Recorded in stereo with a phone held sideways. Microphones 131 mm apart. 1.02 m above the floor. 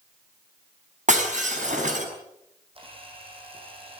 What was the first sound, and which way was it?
Breaking glass, 60° right (ahead or behind).